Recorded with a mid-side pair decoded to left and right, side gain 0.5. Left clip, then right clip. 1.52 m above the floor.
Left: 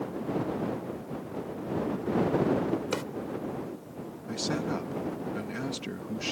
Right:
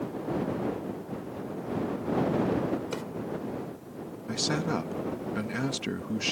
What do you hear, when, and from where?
2.9 s a drawer: 35° left
4.3 s a man speaking: 30° right